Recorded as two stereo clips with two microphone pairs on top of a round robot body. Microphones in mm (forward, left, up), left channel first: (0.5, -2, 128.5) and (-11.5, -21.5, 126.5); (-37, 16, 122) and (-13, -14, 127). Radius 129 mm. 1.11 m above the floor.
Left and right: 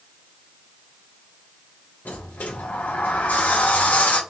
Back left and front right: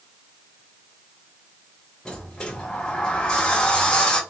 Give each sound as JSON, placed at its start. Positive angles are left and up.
{"t": 2.0, "sound": "a sliding door", "azimuth_deg": 55, "distance_m": 0.5}